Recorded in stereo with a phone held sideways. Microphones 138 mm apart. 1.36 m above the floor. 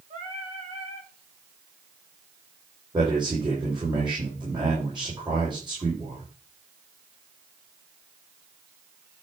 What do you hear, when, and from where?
0.1 s singing: 45° right (ahead or behind), 7 m
2.9 s a man speaking: 35° right (ahead or behind), 5 m